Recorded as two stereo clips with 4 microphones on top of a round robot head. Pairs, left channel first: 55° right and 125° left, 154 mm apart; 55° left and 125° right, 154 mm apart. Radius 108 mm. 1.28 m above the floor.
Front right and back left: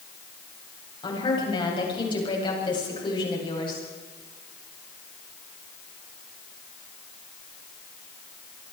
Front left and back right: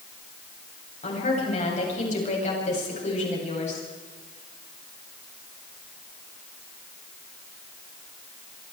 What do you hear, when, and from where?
1.0 s a woman speaking: 10° left, 8.5 m